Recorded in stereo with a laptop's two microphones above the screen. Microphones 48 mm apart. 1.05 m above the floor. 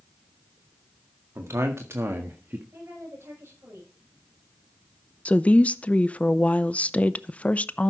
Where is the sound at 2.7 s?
70° right (ahead or behind), 6 m.